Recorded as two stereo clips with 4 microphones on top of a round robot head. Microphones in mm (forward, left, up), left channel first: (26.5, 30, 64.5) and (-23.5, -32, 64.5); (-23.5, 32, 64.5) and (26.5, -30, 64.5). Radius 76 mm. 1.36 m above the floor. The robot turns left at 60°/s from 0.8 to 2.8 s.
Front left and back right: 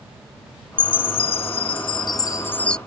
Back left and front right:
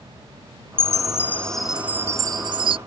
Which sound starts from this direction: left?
A chime, at 0.8 s.